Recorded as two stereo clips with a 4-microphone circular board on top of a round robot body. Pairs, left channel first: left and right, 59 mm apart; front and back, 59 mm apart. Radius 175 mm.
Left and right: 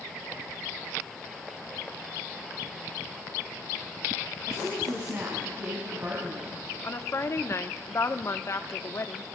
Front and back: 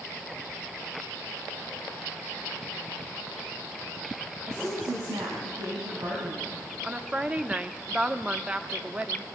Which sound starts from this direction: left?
A woman speaking, at 6.8 s.